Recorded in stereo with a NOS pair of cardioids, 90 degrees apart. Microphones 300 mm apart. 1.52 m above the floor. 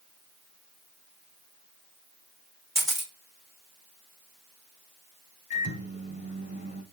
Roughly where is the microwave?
Ahead left.